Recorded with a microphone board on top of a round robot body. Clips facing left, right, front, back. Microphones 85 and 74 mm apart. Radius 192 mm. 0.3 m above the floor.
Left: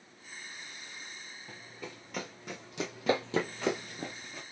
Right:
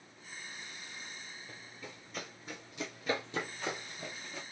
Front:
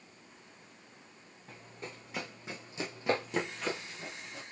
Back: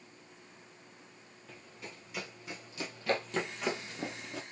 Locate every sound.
1.5 s running footsteps: 60° left, 2.5 m; by 4.4 s straight behind, 0.6 m